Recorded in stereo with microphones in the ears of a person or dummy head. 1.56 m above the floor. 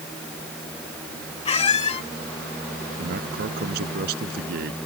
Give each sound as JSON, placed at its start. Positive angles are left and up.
{"t": 1.4, "sound": "a squeak", "side_deg": 35}
{"t": 3.0, "sound": "a man speaking", "side_deg": -55}